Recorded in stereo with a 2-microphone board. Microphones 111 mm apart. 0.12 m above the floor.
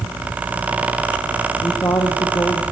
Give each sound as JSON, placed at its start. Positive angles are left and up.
{"t": 1.6, "sound": "a woman speaking", "side_deg": 30, "distance_m": 3.0}